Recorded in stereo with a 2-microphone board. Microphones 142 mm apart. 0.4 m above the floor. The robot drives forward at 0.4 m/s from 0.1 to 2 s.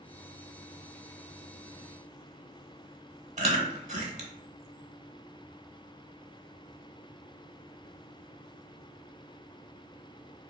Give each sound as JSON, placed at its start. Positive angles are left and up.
{"t": 3.4, "sound": "chewing", "side_deg": -55, "distance_m": 0.8}